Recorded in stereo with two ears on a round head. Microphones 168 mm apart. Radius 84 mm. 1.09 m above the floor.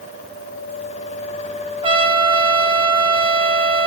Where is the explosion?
I don't hear an explosion.